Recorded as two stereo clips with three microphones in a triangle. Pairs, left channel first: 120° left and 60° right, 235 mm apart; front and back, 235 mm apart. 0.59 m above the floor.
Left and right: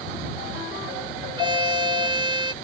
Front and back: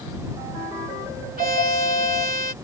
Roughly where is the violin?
Behind right.